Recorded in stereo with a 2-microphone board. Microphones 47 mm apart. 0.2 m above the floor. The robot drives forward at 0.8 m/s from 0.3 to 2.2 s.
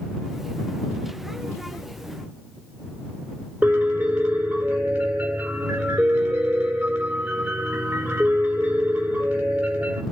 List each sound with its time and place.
3.6 s a piano: 25° right (ahead or behind), 5.5 m